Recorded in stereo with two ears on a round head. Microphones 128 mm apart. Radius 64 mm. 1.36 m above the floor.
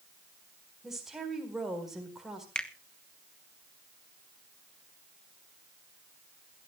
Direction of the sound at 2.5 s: 5° left (ahead or behind).